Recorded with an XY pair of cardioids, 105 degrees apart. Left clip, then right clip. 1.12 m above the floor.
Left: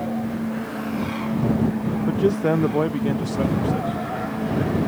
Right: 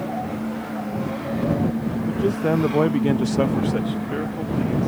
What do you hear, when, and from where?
2.1 s a man speaking: 25° left; by 4.9 s 65° right